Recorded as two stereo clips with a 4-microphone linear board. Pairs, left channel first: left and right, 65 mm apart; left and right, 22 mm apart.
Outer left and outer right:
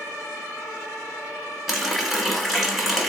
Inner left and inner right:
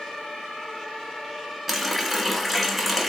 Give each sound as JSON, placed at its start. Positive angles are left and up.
{"t": 1.7, "sound": "a running tap", "side_deg": 0, "distance_m": 0.7}